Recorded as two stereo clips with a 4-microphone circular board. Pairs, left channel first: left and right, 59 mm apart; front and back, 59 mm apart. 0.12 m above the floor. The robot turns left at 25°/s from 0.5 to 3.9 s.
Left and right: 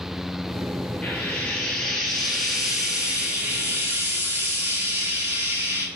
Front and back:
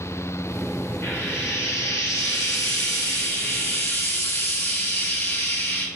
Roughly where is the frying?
Ahead left.